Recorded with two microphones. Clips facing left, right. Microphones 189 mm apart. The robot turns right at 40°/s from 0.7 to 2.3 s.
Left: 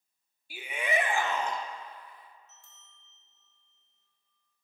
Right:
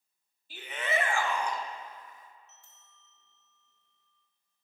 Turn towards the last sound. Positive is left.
turn(degrees=-70)  # may be behind; listen again after turning